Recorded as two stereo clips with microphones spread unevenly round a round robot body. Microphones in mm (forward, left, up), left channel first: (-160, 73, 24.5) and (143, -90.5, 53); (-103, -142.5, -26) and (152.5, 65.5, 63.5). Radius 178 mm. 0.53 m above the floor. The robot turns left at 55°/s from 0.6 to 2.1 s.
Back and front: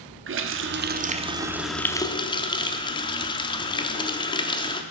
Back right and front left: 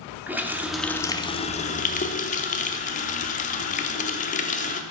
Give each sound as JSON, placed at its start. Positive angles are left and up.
{"t": 0.3, "sound": "a running tap", "azimuth_deg": -65, "distance_m": 0.6}